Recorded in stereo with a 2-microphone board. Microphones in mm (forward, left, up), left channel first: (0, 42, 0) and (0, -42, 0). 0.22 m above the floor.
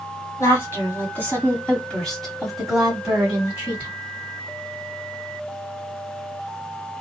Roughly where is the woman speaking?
Left.